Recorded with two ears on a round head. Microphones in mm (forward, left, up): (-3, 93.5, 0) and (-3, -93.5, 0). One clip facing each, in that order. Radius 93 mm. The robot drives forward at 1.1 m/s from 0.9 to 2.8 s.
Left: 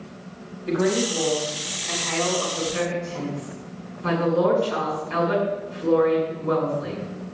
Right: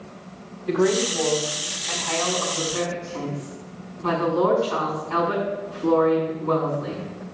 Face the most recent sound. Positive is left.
turn(degrees=25)  # may be behind; listen again after turning